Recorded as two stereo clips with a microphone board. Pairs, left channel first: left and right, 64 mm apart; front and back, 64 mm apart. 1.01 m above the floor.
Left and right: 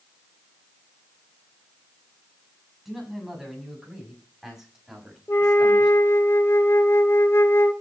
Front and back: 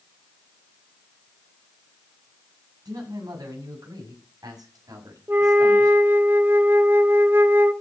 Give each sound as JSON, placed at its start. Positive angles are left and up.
{"t": 2.9, "sound": "a man speaking", "azimuth_deg": -175, "distance_m": 7.0}
{"t": 5.3, "sound": "a flute", "azimuth_deg": 130, "distance_m": 1.2}